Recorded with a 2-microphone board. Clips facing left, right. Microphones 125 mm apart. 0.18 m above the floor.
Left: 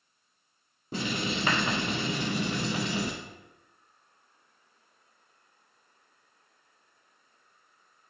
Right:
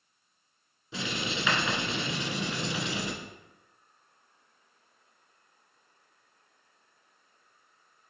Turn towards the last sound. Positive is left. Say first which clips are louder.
# left 3 dB
turn(degrees=50)  # may be behind; listen again after turning